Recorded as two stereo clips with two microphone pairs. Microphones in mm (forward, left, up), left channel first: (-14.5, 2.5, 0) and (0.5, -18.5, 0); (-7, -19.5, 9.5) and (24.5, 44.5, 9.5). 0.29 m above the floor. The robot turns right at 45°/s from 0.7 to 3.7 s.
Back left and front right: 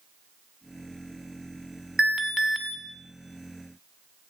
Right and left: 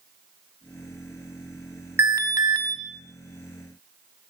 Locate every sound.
2.0 s an alarm: 15° left, 1.8 m; by 2.8 s 45° left, 1.8 m